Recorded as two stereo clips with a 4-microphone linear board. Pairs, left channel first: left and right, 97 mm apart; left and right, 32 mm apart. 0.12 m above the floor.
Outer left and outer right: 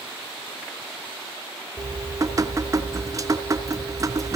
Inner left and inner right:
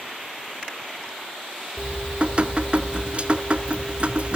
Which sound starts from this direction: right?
Dripping, at 1.8 s.